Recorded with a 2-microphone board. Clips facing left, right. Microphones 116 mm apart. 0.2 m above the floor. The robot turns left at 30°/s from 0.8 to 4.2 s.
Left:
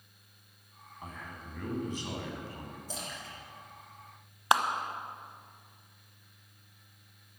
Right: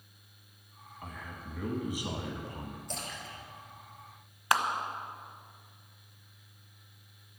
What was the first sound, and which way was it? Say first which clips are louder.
A man speaking: even; 10° left.